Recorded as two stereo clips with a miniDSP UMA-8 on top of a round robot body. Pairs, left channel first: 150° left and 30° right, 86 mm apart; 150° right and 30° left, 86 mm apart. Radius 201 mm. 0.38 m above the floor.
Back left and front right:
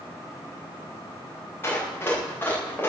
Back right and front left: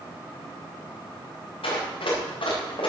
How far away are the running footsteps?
About 9 m.